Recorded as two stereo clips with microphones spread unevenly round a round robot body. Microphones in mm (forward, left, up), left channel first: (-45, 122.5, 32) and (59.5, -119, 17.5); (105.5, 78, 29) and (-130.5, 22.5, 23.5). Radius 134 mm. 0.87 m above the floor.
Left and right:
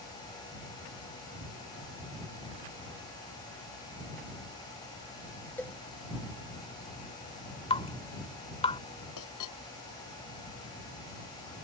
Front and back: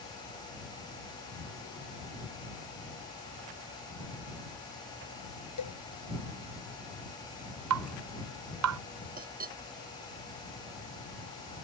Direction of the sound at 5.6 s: 30° left.